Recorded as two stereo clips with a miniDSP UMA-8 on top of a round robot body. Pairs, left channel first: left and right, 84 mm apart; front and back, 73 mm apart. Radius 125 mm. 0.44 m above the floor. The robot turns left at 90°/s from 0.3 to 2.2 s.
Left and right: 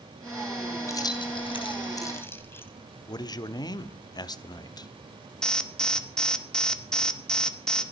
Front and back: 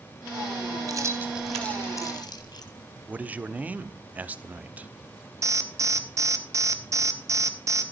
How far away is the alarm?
About 2 m.